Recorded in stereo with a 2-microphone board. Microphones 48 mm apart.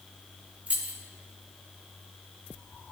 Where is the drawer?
I don't hear a drawer.